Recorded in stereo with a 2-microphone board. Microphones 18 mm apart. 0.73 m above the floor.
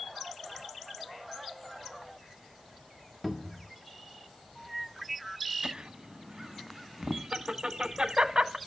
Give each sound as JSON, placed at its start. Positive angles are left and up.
{"t": 3.2, "sound": "a cupboard door", "side_deg": 5, "distance_m": 1.3}
{"t": 5.6, "sound": "laughter", "side_deg": -55, "distance_m": 1.1}